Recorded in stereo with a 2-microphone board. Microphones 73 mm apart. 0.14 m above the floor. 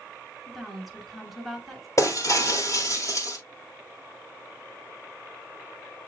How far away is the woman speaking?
About 1.6 m.